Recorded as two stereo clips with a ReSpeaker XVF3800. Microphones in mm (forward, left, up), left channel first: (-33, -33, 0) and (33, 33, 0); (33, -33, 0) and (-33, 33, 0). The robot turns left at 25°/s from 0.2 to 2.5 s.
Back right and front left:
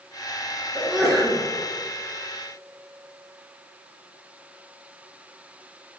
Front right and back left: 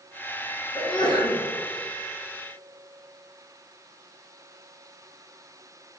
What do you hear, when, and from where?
0.8 s a sneeze: 35° right, 2 m; by 1.4 s 50° right, 2 m